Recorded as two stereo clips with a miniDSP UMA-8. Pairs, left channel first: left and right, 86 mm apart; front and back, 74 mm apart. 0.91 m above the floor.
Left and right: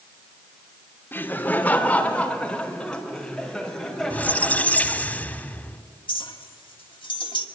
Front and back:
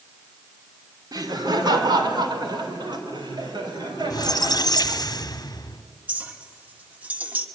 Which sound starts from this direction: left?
A clink, at 6.1 s.